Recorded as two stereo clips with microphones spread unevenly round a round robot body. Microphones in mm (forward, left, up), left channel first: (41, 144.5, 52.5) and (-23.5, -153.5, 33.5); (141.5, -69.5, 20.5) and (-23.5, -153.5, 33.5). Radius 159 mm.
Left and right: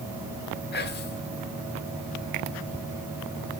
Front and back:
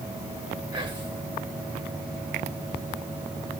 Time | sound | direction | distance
0.7 | whispering | 135° left | 1.4 m